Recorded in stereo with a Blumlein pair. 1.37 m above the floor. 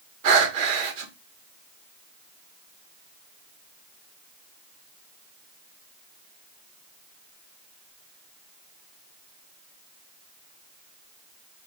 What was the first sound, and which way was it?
Breathing, 45° right.